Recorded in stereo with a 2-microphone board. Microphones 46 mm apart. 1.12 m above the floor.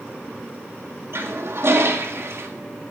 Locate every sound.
1.1 s a toilet flushing: 60° right (ahead or behind), 1.8 m